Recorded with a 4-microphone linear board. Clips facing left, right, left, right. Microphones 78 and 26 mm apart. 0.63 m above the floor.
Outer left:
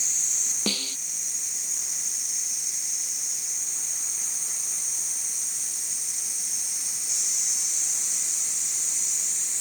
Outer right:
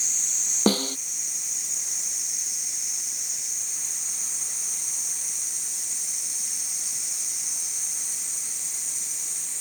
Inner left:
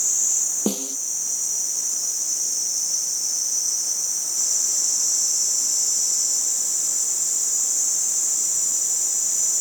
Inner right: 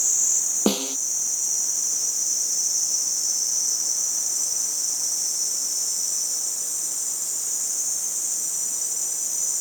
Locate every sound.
0.7 s a snare drum: 40° right (ahead or behind)